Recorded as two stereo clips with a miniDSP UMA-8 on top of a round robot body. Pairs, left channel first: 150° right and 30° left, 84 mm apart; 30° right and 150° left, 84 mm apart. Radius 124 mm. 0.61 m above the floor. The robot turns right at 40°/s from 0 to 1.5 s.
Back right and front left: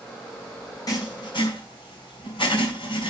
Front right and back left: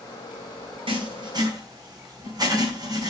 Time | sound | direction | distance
0.9 | writing | 170° left | 3 m